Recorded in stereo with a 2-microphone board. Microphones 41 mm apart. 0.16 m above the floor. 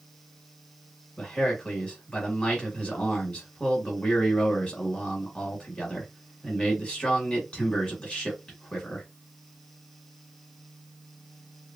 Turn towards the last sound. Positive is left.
turn(degrees=25)  # may be behind; listen again after turning